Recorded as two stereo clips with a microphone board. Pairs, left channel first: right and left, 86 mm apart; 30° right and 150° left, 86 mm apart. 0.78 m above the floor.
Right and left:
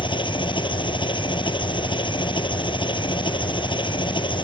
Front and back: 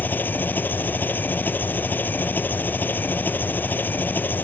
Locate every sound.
0.0 s an engine running: 95° right